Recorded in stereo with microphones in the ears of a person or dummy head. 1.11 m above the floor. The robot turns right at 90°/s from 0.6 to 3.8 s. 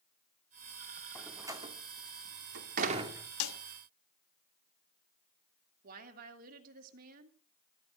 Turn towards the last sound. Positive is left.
turn(degrees=-50)  # may be behind; listen again after turning